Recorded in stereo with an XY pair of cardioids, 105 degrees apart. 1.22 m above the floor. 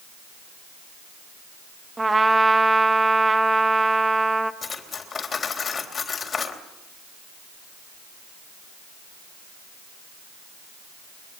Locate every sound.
2.0 s a trumpet: 15° right, 1.7 m
4.6 s cutlery clinking: 35° left, 3.5 m